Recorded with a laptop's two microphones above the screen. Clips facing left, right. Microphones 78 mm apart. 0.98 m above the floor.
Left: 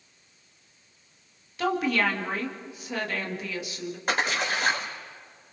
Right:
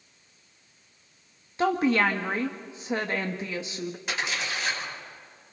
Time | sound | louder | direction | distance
1.6 | a woman speaking | right 2 dB | 30° right (ahead or behind) | 1.7 m
4.1 | a splash | left 7 dB | 50° left (ahead or behind) | 3 m